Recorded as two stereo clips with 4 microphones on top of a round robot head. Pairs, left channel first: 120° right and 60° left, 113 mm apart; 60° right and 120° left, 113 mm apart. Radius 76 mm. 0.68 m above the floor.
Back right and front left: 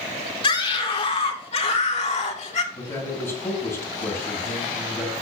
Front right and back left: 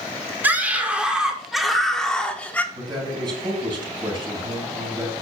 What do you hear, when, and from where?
0.4 s a scream: 165° right, 2.5 m; by 2.6 s 135° right, 2 m
2.7 s a man speaking: 170° left, 4.5 m